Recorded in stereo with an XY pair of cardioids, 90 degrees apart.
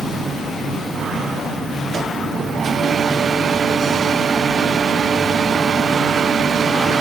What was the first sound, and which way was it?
Only background noise.